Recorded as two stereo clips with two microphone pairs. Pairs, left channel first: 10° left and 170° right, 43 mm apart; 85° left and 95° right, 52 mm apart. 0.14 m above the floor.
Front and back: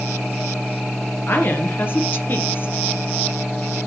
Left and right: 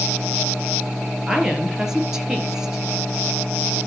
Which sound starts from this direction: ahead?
A woman speaking, at 1.3 s.